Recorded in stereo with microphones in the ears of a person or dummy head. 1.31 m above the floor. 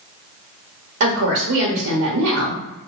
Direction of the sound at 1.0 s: 80° right.